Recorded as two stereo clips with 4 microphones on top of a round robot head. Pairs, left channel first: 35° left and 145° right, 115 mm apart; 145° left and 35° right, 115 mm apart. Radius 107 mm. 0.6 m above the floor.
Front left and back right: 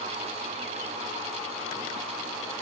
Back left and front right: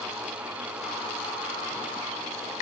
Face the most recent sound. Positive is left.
No sound to turn to.